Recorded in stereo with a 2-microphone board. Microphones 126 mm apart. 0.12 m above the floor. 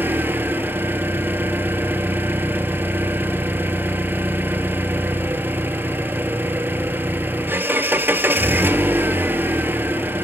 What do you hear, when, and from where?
0.0 s an engine running: 15° right (ahead or behind), 0.8 m